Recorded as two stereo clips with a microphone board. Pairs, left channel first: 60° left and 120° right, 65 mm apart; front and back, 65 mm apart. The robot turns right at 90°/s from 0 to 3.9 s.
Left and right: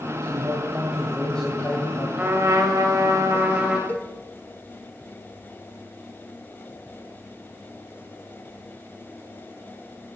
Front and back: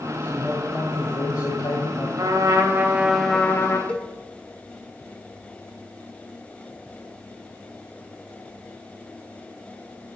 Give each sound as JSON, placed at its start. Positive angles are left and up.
{"t": 0.2, "sound": "a man speaking", "azimuth_deg": -120, "distance_m": 2.0}
{"t": 2.2, "sound": "a trumpet", "azimuth_deg": 175, "distance_m": 2.0}
{"t": 3.9, "sound": "a cowbell", "azimuth_deg": 50, "distance_m": 1.4}